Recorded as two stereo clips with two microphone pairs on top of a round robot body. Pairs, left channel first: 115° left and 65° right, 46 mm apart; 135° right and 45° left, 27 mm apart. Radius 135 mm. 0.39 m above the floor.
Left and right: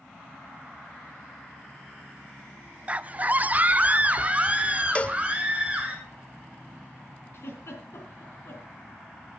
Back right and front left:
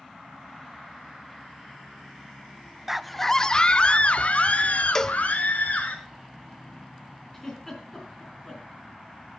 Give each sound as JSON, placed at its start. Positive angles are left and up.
{"t": 2.9, "sound": "a scream", "azimuth_deg": -25, "distance_m": 0.8}
{"t": 5.0, "sound": "a cowbell", "azimuth_deg": 165, "distance_m": 0.6}
{"t": 7.3, "sound": "a giggle", "azimuth_deg": 145, "distance_m": 3.5}